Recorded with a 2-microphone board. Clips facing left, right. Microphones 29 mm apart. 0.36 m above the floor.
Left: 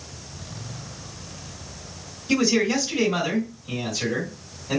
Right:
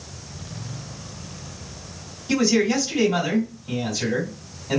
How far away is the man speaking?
About 1.7 m.